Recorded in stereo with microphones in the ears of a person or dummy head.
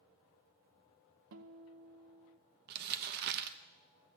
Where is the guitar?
60° right (ahead or behind), 0.9 m.